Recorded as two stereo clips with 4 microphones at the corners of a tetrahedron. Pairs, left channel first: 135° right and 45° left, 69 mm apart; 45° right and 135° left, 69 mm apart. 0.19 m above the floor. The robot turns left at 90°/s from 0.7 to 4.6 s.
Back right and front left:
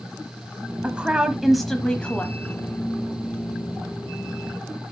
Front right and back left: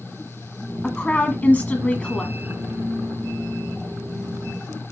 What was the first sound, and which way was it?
A woman speaking, 20° left.